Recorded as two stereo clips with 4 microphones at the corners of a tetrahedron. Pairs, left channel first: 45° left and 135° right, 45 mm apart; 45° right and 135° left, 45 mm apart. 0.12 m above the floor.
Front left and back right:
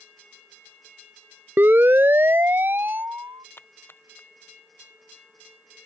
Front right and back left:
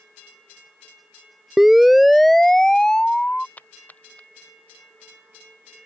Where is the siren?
145° right; by 3.5 s 105° right.